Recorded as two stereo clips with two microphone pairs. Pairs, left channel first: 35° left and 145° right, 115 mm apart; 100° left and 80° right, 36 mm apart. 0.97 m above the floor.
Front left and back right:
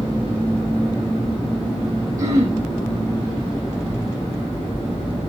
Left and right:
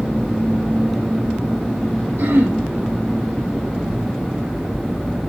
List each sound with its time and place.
2.2 s throat clearing: 85° right, 5.5 m